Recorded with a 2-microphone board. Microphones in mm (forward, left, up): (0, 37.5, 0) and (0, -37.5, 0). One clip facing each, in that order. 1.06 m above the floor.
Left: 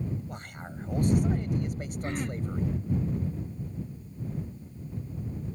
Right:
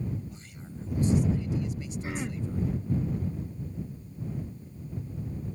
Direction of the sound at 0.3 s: 60° left (ahead or behind).